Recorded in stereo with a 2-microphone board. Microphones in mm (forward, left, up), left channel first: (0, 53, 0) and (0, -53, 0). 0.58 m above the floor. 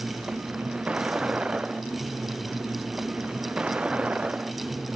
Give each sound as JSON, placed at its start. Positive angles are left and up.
{"t": 0.0, "sound": "a vehicle", "side_deg": -10}